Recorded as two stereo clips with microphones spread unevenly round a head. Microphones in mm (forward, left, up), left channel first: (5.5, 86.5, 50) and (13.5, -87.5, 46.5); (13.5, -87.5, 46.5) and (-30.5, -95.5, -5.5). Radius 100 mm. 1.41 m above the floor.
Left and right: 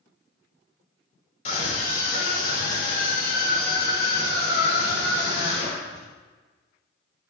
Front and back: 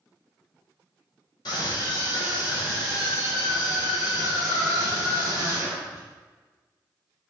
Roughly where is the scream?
Ahead left.